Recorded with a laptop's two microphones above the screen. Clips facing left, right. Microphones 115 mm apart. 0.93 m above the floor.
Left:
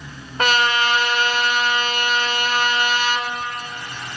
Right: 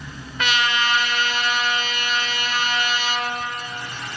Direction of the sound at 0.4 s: 45° left (ahead or behind).